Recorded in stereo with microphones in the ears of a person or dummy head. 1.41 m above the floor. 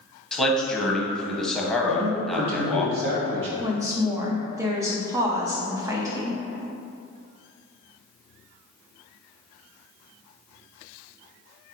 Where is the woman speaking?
10° right (ahead or behind), 0.5 m.